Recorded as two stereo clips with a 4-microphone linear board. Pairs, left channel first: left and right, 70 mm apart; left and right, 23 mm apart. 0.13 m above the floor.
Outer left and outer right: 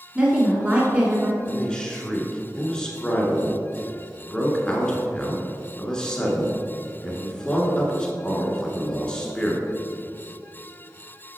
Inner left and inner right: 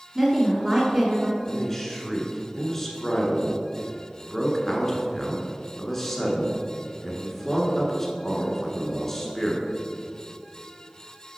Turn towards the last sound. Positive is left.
turn(degrees=10)  # may be behind; listen again after turning